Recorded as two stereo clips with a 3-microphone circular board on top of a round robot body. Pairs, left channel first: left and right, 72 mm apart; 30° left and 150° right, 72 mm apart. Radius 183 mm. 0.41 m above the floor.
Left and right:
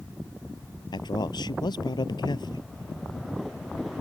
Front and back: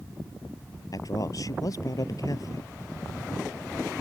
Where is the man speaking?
70° left.